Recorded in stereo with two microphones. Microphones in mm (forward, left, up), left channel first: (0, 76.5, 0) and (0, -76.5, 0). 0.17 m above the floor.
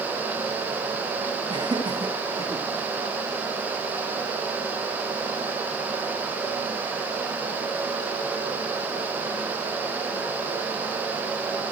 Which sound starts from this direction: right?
Laughter, at 1.5 s.